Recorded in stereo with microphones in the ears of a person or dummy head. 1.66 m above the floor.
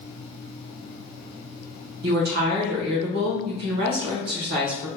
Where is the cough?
No cough in this recording.